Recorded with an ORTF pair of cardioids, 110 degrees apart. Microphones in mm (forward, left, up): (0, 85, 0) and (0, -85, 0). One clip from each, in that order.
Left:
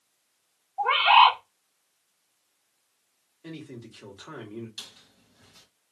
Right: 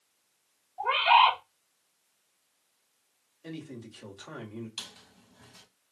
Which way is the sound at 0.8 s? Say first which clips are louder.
Left 4 dB; 30° left.